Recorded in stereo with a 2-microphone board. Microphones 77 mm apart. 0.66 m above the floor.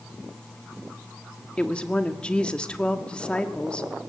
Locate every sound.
1.6 s a woman speaking: 15° left (ahead or behind), 1.6 m